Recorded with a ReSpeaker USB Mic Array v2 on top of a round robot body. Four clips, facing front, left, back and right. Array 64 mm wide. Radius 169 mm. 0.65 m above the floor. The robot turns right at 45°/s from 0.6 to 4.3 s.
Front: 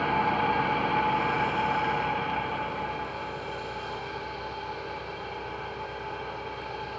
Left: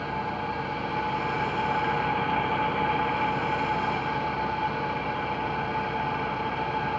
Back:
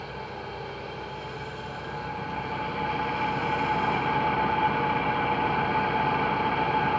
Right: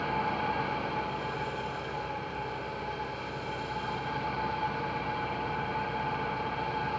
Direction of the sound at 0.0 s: Straight ahead.